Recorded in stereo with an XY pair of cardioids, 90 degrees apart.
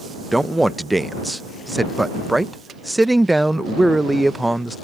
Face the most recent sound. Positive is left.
turn(degrees=-10)